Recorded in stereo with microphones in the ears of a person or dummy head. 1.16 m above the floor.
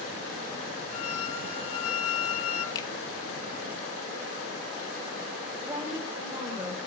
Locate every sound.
0.9 s a violin: 35° left (ahead or behind), 4 m
2.8 s a finger snap: 20° left (ahead or behind), 1.9 m
5.6 s a woman speaking: 10° right (ahead or behind), 3.5 m